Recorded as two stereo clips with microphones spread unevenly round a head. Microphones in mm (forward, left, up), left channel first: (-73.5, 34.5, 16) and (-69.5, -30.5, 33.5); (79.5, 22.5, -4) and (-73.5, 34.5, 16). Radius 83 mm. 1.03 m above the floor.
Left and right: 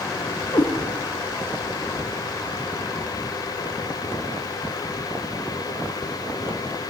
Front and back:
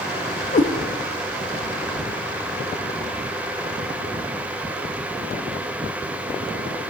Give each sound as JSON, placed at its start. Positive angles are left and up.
{"t": 0.5, "sound": "a cat meowing", "azimuth_deg": 35, "distance_m": 0.7}